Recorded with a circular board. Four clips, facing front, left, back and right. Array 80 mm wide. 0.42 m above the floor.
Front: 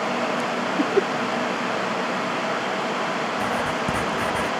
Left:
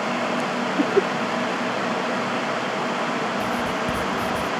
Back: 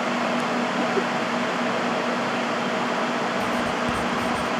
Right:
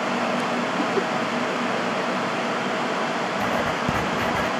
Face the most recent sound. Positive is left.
turn(degrees=-60)